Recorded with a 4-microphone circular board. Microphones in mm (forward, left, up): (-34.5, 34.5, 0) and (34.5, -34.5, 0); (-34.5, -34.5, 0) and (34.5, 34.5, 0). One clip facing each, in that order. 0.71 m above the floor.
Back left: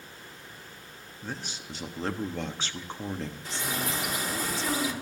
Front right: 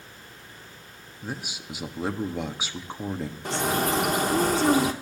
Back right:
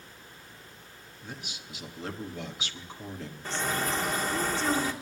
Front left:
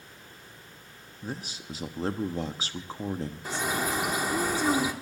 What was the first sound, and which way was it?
A man speaking, 25° left.